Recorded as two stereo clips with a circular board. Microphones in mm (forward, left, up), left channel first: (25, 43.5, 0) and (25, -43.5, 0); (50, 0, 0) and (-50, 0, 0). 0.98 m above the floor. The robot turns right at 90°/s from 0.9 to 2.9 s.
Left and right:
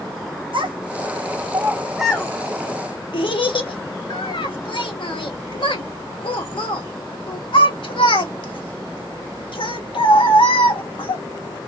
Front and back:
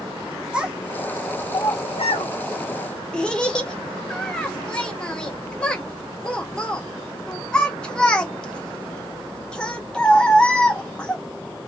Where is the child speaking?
100° right, 1.2 m; by 11.2 s 80° left, 1.2 m.